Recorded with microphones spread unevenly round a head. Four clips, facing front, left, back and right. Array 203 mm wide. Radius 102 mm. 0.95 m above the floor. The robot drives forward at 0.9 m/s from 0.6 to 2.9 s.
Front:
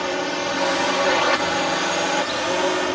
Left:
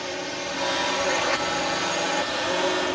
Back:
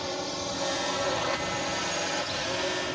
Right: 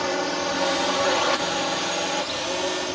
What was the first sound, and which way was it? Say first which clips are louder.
A drone: right 6 dB, front 9 dB; 30° right.